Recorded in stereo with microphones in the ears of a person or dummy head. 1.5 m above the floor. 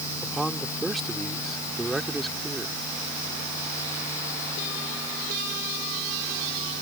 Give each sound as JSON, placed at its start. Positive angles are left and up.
{"t": 0.2, "sound": "a man speaking", "side_deg": 0}